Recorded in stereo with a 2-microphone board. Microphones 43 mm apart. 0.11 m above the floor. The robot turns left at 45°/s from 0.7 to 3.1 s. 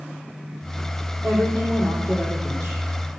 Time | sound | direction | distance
1.2 | a woman speaking | 40° right | 3.5 m